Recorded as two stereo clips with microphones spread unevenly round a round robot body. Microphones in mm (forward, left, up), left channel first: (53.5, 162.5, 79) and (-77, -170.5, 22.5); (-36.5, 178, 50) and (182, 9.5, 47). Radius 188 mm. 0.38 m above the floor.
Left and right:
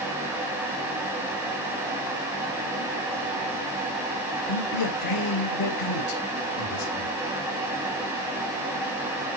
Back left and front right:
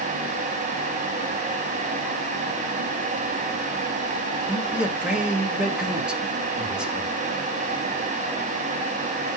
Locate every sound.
4.5 s a man speaking: 50° left, 2 m